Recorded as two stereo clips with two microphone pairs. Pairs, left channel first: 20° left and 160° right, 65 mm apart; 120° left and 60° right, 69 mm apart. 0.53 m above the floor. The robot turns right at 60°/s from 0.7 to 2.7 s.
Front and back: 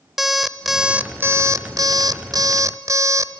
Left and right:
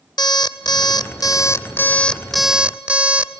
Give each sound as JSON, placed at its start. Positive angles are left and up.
{"t": 0.2, "sound": "an alarm clock", "azimuth_deg": 110, "distance_m": 0.7}